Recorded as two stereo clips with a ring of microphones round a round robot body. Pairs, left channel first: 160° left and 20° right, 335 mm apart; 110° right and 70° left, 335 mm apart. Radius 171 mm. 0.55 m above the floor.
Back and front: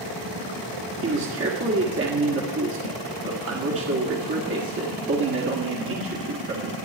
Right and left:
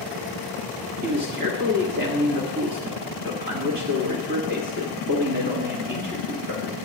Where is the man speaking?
15° left, 1.6 m.